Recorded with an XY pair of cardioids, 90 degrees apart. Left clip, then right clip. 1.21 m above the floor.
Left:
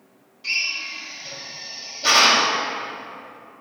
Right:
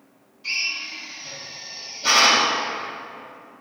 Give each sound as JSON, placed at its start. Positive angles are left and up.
{"t": 0.4, "sound": "a drill", "azimuth_deg": 45, "distance_m": 2.5}